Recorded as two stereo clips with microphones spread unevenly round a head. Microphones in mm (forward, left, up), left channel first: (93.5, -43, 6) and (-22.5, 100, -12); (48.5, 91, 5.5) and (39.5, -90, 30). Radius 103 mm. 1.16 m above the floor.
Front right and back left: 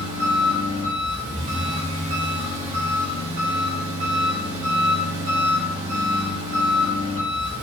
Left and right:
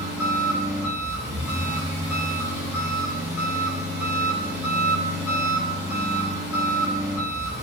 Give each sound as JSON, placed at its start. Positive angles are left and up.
{"t": 0.0, "sound": "an engine running", "azimuth_deg": 180, "distance_m": 4.0}